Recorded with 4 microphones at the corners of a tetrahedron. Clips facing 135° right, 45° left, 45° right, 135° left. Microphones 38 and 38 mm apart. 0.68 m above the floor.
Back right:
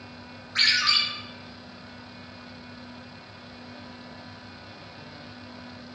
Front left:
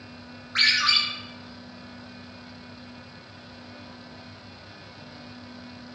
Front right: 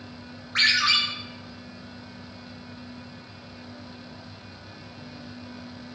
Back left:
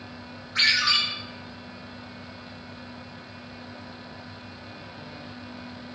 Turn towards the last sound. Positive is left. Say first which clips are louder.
# front left 1 dB, front right 1 dB
turn(degrees=-5)